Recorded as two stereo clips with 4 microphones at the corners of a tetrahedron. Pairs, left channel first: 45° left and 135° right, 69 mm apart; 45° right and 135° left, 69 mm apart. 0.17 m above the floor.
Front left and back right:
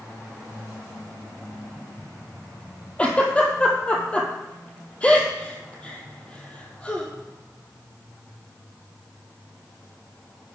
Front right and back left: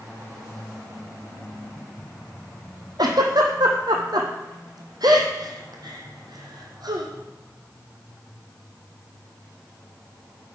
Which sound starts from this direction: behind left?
A giggle, at 3.0 s.